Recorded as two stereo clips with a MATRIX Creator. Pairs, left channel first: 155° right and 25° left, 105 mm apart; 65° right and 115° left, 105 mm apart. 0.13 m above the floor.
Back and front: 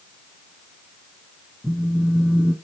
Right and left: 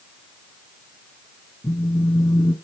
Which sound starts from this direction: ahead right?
A phone buzzing, at 1.6 s.